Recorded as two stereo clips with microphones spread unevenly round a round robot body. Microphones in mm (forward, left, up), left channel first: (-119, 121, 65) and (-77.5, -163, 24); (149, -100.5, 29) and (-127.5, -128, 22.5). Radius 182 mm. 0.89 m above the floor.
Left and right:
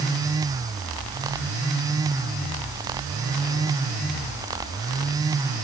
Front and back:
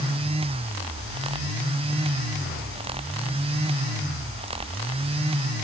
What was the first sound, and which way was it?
Only background noise.